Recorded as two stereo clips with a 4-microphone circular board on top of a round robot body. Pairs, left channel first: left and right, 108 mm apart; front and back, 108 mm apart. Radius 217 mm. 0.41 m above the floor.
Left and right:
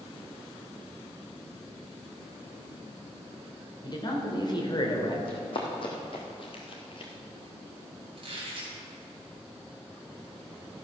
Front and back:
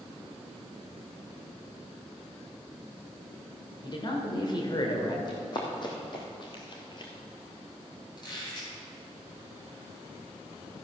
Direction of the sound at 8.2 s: 50° right.